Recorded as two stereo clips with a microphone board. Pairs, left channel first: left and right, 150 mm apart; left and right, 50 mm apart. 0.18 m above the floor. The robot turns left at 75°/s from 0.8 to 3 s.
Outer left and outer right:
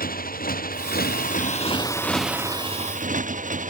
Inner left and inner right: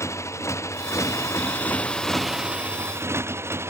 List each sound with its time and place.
0.0 s a motorcycle: 105° left; by 3.7 s 60° right